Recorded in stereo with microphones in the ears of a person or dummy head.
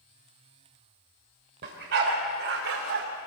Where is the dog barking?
55° right (ahead or behind), 3.5 m; by 3.1 s 60° right (ahead or behind), 2.5 m.